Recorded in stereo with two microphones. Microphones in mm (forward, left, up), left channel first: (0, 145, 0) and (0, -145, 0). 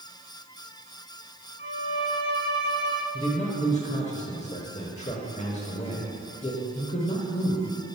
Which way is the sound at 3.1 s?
25° left (ahead or behind).